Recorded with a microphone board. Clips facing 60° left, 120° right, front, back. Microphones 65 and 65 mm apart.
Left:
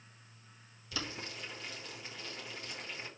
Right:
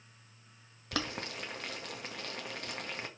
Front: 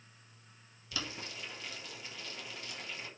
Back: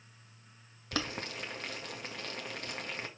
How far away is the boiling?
About 1.7 m.